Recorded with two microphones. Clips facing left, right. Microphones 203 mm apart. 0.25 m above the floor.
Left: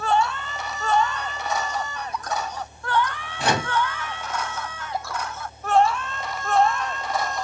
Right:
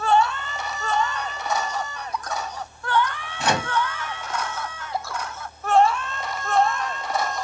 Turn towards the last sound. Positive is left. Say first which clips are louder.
# even
turn(degrees=35)  # may be behind; listen again after turning